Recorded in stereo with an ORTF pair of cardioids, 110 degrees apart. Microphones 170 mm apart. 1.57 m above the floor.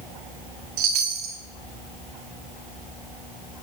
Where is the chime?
70° right, 0.7 m.